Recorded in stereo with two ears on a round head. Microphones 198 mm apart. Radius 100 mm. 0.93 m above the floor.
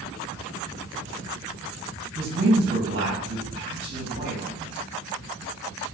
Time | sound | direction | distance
2.1 | a man speaking | 55° right (ahead or behind) | 3.5 m